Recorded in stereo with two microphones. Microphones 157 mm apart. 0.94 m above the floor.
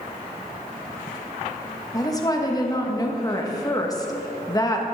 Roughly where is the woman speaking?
Left.